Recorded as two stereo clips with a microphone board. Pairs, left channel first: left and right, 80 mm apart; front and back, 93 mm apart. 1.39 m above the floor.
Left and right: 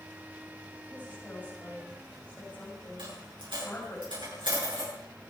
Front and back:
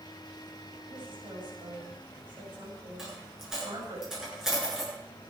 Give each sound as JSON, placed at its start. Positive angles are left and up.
{"t": 0.9, "sound": "a woman speaking", "azimuth_deg": 160, "distance_m": 7.0}
{"t": 3.0, "sound": "a dropped coin", "azimuth_deg": -95, "distance_m": 8.5}